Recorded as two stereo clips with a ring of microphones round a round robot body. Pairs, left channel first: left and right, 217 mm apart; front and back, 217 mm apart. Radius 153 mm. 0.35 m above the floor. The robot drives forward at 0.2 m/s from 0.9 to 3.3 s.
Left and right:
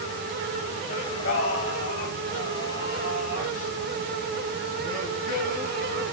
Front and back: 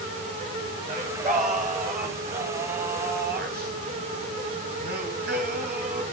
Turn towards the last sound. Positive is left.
turn(degrees=145)